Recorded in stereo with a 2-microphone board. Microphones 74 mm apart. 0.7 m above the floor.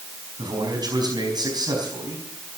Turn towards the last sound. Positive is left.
turn(degrees=-65)  # may be behind; listen again after turning